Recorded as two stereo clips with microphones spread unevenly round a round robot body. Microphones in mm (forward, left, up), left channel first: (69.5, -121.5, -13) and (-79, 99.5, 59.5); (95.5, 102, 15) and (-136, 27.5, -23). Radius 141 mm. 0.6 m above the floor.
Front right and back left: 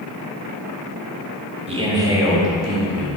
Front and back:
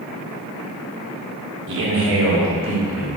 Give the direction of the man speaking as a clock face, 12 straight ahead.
5 o'clock.